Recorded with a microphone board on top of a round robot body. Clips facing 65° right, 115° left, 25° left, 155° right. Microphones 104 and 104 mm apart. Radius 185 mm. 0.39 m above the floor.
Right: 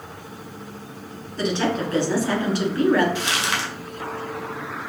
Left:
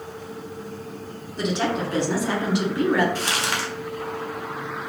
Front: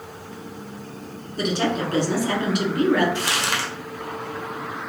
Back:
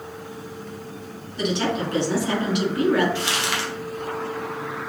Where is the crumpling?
65° left, 1.4 m.